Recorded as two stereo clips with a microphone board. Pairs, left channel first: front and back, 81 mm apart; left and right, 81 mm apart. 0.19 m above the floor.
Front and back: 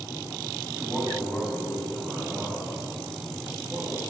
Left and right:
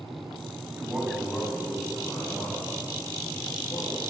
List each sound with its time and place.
0.7 s a man speaking: 55° right, 1.3 m; by 4.1 s 85° left, 3.5 m